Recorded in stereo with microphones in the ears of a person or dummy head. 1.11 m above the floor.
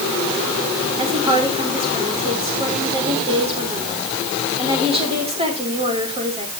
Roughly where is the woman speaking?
Right.